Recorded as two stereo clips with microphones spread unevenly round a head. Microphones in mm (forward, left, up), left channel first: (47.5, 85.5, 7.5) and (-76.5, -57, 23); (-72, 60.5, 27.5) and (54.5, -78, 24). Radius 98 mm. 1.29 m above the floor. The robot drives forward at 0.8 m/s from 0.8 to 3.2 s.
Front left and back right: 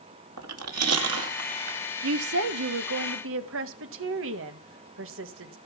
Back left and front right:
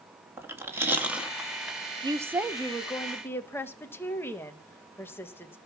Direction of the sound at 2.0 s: 115° right.